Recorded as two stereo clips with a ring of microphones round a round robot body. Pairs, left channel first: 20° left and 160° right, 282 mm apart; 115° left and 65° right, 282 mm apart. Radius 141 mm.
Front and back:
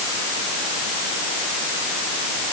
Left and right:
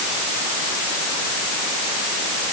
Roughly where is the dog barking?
I don't hear a dog barking.